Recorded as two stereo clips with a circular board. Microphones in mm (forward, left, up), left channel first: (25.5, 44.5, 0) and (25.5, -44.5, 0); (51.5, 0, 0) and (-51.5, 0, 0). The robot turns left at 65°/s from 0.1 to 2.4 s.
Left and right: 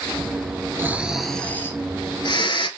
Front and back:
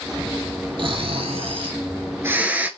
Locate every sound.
0.8 s snoring: 150° right, 0.5 m; by 2.7 s 105° left, 0.5 m